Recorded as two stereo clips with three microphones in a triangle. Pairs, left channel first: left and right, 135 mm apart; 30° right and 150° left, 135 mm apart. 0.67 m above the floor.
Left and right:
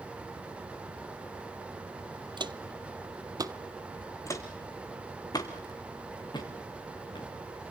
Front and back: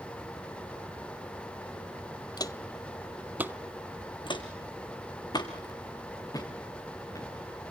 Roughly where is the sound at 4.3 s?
Ahead.